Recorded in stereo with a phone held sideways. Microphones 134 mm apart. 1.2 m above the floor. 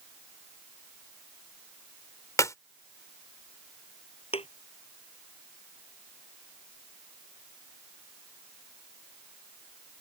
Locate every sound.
2.4 s a clap: 25° left (ahead or behind)
4.3 s a thud: 45° left (ahead or behind)